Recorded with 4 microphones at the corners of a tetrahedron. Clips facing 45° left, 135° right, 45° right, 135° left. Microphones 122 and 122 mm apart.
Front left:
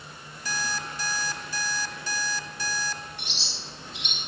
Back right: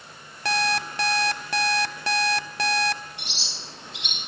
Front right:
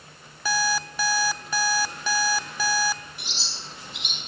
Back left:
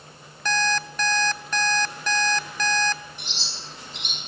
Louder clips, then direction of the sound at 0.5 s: Back right 8 dB, back left 1 dB; 130° right.